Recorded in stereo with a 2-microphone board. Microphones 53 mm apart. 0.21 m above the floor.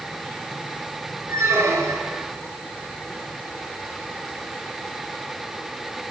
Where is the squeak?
65° right (ahead or behind), 2.5 m.